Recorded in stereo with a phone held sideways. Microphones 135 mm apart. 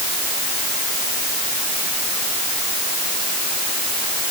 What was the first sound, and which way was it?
Only background noise.